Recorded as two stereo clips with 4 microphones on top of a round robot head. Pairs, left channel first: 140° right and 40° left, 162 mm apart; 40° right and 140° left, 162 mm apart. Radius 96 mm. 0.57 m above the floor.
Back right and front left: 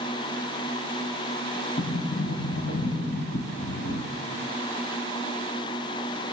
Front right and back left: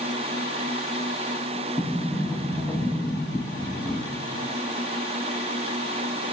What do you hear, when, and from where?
1.8 s a sliding door: 130° right, 0.5 m